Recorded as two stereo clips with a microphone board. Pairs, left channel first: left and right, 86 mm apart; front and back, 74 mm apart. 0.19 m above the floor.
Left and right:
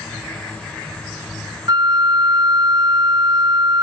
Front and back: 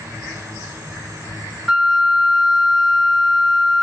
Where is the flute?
100° right, 0.8 m.